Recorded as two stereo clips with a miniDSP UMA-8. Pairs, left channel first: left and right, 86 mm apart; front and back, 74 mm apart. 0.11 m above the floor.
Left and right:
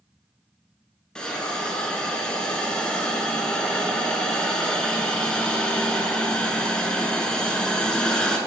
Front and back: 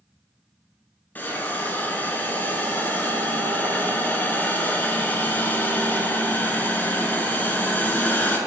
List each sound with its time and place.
1.1 s a hiss: 20° left, 0.8 m